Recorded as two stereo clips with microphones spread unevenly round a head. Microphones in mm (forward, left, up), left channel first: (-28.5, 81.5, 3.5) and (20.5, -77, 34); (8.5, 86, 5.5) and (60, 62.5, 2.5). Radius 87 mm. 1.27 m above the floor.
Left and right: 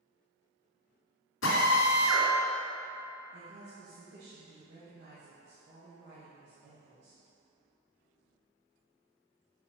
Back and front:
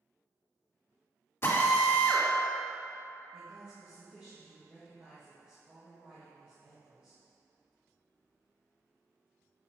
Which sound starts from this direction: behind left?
A drill, at 1.4 s.